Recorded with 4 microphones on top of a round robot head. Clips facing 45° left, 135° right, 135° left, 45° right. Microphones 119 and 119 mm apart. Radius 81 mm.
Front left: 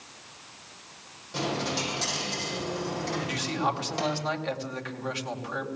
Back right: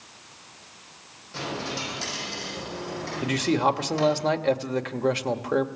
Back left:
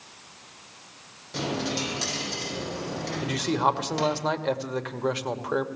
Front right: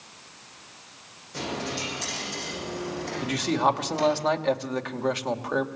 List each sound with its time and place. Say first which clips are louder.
1.3 s a dropped coin: front left 2 dB, back left 3 dB; 115° left, 7.5 m
3.2 s a man speaking: back right 10 dB, front right 1 dB; 135° right, 2.5 m